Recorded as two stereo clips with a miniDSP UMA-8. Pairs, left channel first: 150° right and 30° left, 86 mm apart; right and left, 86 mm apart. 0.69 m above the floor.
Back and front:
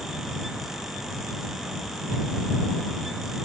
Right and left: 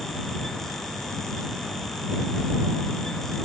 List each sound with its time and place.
Only background noise.